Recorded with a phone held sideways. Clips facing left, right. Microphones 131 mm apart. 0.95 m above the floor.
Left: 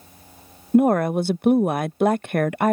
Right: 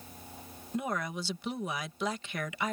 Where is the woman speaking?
55° left (ahead or behind).